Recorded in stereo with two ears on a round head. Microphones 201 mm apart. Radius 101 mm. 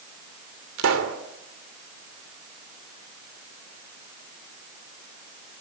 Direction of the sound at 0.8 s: 70° right (ahead or behind).